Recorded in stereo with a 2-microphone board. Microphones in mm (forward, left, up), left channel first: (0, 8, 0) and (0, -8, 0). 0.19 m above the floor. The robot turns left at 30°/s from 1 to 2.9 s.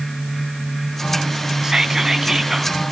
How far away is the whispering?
About 1.2 m.